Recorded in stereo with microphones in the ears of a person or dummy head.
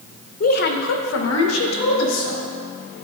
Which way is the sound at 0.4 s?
45° left (ahead or behind).